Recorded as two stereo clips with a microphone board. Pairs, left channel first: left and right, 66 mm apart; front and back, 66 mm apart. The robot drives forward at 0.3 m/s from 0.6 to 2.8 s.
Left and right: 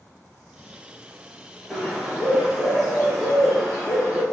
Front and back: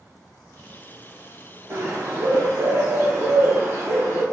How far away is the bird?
About 0.8 m.